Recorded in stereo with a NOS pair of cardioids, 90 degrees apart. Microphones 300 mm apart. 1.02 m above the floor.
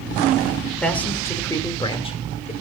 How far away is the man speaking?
About 3 m.